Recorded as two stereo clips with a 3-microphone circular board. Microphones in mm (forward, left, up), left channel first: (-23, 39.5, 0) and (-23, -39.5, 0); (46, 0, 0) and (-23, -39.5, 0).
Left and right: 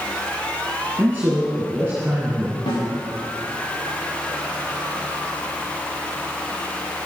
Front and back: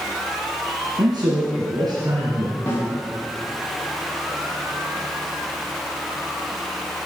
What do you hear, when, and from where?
1.0 s a man speaking: 150° right, 2.5 m
2.7 s a snare drum: 90° left, 3.5 m